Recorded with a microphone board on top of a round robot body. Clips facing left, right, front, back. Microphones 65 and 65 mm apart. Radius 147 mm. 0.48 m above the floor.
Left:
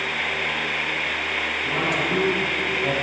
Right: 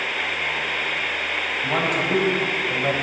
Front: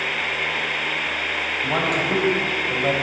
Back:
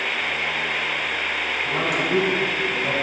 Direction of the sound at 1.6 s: 45° right.